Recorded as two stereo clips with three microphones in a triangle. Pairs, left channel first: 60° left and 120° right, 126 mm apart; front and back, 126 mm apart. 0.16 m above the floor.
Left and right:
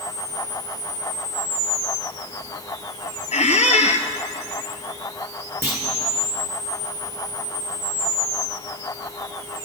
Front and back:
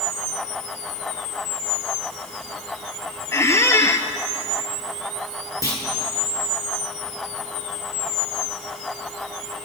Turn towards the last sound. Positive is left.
turn(degrees=-55)